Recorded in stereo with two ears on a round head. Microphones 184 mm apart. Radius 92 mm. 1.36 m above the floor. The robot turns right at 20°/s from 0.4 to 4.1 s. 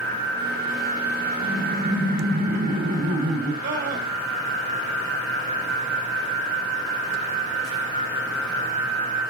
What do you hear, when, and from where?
1.4 s laughter: 125° right, 7 m; by 3.5 s 80° right, 7 m
3.6 s a scream: 60° right (ahead or behind), 6 m; by 4.1 s 50° right (ahead or behind), 6 m